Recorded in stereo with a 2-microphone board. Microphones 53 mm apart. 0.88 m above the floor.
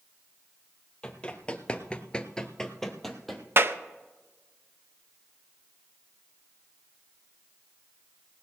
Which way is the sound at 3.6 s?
45° right (ahead or behind).